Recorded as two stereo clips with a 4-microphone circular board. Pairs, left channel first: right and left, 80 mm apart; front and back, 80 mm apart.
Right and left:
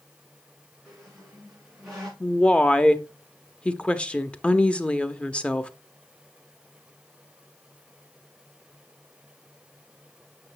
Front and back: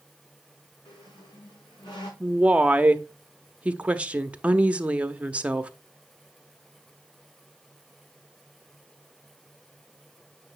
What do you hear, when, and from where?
0.8 s a squeak: 5° left, 4.5 m
2.2 s a woman speaking: 140° right, 0.6 m